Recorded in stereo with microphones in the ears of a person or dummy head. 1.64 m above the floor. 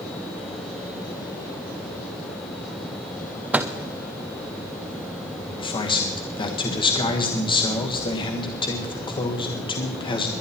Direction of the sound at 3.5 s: 5° right (ahead or behind).